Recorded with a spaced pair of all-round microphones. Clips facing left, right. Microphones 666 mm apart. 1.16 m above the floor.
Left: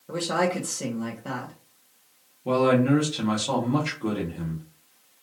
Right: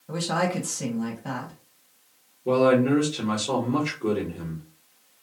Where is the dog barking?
No dog barking in this recording.